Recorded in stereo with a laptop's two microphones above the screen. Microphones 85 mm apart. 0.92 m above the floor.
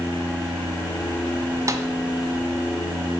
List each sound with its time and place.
1.7 s a snare drum: 40° right (ahead or behind), 1.3 m